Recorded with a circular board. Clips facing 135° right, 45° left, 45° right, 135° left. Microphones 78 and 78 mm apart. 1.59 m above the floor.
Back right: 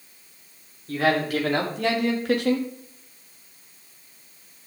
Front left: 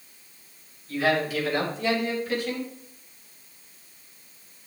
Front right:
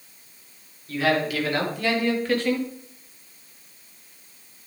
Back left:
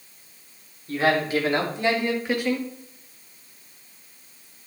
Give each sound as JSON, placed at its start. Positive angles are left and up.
{"t": 0.9, "sound": "a man speaking", "azimuth_deg": -170, "distance_m": 4.0}